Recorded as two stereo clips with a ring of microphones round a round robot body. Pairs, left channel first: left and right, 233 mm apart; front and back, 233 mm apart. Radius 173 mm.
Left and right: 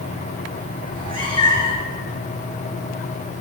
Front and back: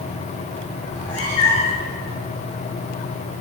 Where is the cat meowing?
20° left, 5.5 m.